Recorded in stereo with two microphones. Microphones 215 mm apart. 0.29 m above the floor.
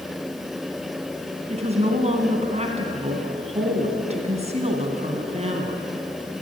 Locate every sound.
1.5 s a woman speaking: 30° right (ahead or behind), 3 m